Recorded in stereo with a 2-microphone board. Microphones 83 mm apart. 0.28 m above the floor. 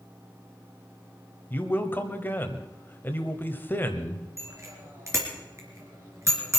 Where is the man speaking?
25° left (ahead or behind), 1.3 m.